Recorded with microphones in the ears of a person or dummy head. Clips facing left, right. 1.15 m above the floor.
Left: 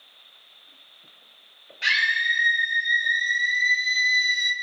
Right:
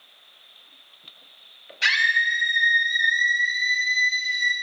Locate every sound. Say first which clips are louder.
1.8 s a scream: right 2 dB; 70° right (ahead or behind), 2 m; by 4.5 s 30° left (ahead or behind), 1.3 m